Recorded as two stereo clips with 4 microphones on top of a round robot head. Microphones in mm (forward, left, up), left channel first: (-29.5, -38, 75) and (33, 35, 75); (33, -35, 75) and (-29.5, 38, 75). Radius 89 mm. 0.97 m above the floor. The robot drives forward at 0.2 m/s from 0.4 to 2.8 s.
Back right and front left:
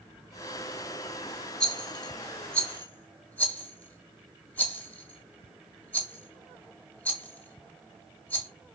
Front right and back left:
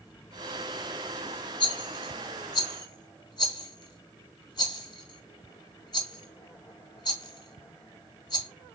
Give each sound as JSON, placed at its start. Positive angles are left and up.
{"t": 1.6, "sound": "a rattle", "azimuth_deg": -50, "distance_m": 1.0}